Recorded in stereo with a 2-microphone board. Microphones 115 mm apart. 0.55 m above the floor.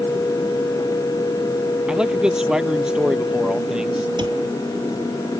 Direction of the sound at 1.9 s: 5° right (ahead or behind).